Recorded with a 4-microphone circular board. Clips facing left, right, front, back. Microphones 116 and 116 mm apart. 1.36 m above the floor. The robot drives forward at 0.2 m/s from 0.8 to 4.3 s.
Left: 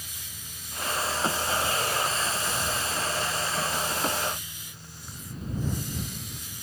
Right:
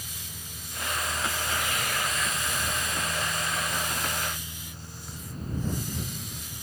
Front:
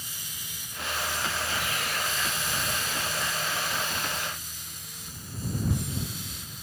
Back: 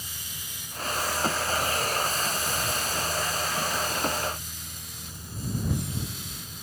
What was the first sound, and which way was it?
Only background noise.